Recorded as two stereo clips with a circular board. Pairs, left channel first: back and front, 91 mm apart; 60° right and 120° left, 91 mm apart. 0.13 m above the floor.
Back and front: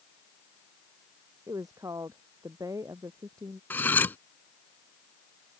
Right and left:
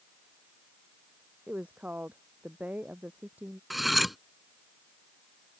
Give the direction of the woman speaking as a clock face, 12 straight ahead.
10 o'clock.